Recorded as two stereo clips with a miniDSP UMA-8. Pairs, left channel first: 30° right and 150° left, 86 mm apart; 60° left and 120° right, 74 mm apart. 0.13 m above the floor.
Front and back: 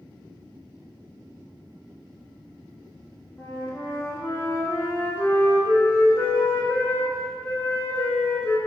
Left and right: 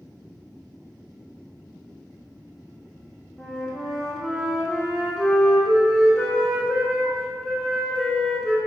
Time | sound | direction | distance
3.4 | a flute | 30° right | 0.7 m